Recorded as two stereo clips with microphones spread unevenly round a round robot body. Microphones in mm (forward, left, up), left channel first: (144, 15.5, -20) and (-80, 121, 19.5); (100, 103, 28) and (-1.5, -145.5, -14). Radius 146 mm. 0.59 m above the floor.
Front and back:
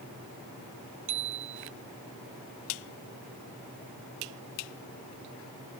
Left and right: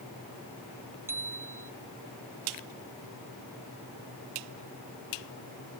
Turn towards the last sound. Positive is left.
turn(degrees=165)